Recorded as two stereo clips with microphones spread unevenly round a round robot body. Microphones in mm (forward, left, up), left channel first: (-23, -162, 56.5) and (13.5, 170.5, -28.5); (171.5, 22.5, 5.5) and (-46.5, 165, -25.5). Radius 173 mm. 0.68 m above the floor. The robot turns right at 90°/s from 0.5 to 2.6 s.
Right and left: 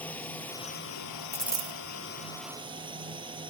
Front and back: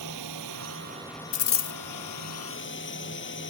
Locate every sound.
0.0 s a drone: straight behind; by 3.5 s 10° left
1.3 s a dropped coin: 15° right; by 1.8 s 20° left